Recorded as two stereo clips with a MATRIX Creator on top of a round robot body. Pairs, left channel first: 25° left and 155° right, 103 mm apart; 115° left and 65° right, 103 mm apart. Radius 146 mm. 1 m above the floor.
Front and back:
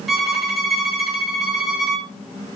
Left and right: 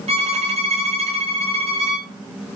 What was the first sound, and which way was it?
A violin, 70° right.